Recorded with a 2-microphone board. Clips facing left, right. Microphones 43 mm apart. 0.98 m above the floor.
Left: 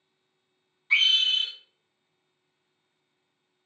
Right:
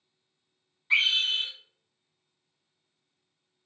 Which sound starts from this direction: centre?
A scream, at 0.9 s.